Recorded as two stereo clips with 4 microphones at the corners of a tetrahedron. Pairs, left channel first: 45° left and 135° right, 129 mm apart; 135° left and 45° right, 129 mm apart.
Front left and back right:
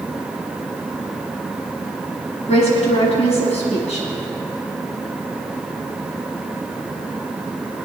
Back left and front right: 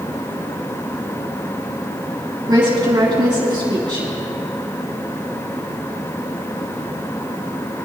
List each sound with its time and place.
2.5 s a woman speaking: 10° left, 5.5 m